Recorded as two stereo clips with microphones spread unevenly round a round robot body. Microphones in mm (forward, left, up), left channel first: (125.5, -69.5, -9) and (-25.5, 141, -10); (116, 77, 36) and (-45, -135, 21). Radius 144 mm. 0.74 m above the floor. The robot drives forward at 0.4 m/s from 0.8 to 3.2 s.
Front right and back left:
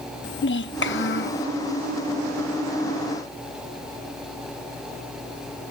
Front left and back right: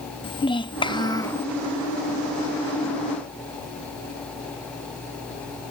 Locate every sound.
0.2 s a child speaking: 20° right; by 1.4 s 30° right